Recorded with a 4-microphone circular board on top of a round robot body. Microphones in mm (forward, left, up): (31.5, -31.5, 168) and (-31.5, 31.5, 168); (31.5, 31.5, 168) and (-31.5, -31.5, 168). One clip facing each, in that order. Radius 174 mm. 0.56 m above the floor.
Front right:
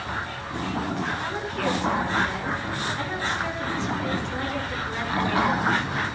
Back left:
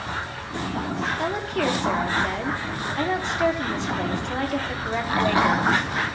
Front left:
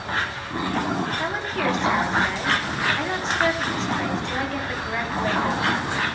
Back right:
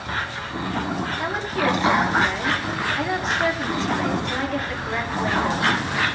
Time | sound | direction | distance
1.2 | a woman speaking | 140° left | 1.6 m